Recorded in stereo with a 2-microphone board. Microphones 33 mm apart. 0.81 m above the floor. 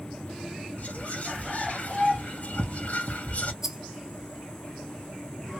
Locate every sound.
0.8 s whispering: 50° left (ahead or behind), 0.9 m
3.6 s a rattle: 10° right (ahead or behind), 0.5 m